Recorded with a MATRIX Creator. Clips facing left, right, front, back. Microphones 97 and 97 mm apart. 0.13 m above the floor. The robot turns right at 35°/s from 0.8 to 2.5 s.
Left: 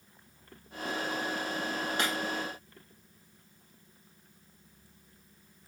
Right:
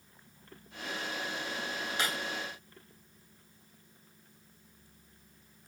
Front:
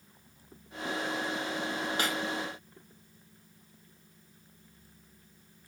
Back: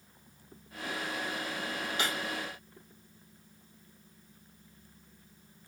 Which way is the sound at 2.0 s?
50° left.